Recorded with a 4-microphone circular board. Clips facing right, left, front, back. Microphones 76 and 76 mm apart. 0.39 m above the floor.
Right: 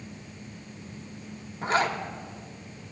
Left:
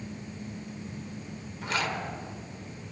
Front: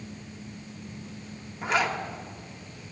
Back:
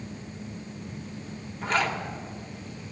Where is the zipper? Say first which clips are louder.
Right 6 dB, even; 80° right, 0.8 m.